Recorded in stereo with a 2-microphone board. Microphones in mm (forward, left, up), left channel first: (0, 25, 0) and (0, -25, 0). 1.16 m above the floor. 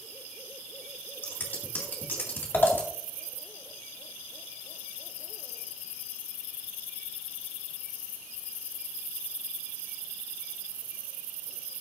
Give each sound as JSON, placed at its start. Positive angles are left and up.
{"t": 1.2, "sound": "scissors", "side_deg": 45, "distance_m": 2.0}